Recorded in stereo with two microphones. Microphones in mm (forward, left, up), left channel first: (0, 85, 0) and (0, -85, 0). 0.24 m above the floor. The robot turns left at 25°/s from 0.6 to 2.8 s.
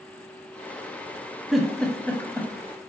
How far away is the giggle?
About 0.6 m.